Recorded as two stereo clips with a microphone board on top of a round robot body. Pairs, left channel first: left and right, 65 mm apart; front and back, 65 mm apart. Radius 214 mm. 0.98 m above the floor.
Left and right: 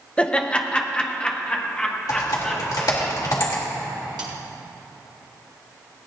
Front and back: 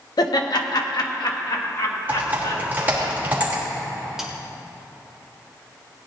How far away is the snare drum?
About 1.2 m.